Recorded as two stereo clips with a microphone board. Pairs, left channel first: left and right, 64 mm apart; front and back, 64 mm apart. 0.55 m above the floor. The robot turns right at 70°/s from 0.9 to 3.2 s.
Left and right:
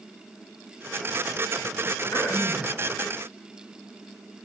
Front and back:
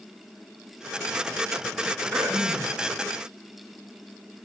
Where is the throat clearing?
90° left, 4 m; by 2.8 s 135° left, 4 m.